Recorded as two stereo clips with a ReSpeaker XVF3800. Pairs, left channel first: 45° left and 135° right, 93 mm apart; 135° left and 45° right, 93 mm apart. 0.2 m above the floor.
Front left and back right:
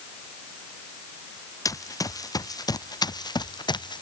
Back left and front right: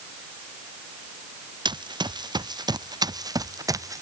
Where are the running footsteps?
10° right; by 4.0 s 10° left.